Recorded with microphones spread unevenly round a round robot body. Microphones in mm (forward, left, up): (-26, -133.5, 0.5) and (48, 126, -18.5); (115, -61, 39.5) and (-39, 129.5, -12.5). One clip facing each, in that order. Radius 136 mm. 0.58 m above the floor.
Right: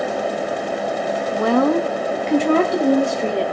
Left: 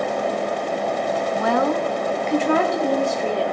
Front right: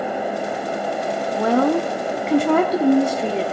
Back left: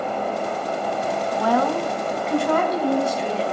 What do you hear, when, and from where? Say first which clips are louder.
1.3 s a woman speaking: right 6 dB, front right 5 dB; 145° right, 0.7 m; by 3.5 s 45° right, 1.9 m